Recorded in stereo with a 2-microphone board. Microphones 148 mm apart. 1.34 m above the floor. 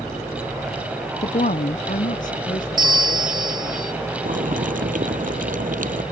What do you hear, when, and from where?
1.2 s a woman speaking: 50° left (ahead or behind); by 3.8 s 60° left (ahead or behind)
2.8 s a bell: 30° right (ahead or behind)
4.2 s boiling: 65° right (ahead or behind)